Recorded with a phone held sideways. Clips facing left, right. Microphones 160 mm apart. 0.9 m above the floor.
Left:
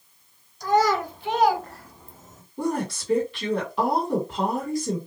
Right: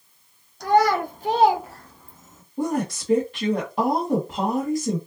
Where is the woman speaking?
45° right (ahead or behind), 1.7 m.